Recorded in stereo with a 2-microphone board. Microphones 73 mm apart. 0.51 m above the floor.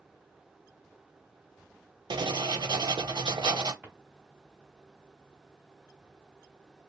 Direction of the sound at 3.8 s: 15° right (ahead or behind).